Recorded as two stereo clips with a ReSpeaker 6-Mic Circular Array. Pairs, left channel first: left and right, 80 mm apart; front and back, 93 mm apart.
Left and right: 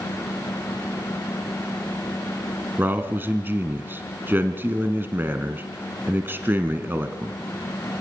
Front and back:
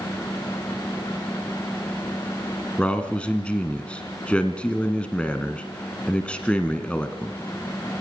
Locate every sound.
2.8 s a man speaking: 65° right, 1.5 m